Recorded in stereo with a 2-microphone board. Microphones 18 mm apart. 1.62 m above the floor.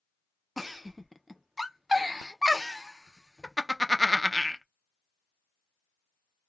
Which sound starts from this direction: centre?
A giggle, at 0.6 s.